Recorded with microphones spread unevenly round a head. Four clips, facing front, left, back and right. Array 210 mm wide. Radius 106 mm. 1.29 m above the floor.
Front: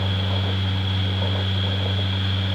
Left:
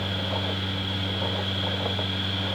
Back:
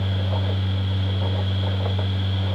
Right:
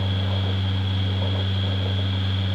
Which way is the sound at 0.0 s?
Straight ahead.